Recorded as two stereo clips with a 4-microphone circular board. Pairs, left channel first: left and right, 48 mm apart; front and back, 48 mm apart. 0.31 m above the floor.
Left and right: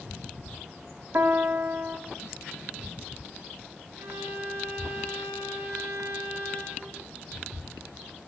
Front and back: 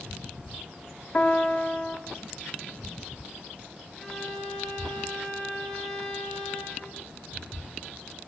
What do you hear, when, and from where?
1.1 s a piano: 50° right, 1.0 m
4.0 s a violin: 80° right, 10 m